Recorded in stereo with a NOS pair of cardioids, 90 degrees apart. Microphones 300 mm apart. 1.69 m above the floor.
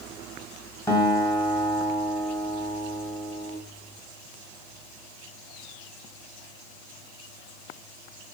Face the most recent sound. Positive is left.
turn(degrees=5)